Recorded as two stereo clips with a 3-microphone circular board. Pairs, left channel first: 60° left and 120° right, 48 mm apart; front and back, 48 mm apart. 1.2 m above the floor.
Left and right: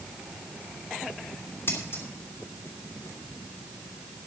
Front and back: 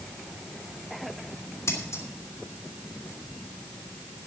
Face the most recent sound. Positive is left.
turn(degrees=25)